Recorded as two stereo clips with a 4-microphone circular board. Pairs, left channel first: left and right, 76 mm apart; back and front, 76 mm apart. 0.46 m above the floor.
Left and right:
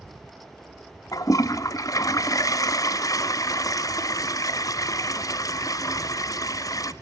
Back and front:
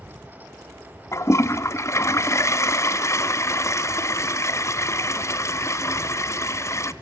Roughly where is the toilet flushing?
Behind left.